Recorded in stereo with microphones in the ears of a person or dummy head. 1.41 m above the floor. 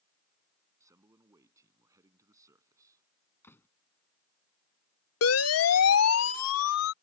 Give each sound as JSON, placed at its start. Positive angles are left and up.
{"t": 0.8, "sound": "a man speaking", "side_deg": -10}
{"t": 3.4, "sound": "a door slam", "side_deg": 20}
{"t": 5.2, "sound": "a siren", "side_deg": 75}